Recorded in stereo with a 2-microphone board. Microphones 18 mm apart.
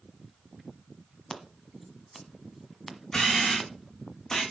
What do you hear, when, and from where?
1.3 s scissors: centre (ahead or behind), 1.3 m
3.1 s a camera shutter: 30° left (ahead or behind), 4 m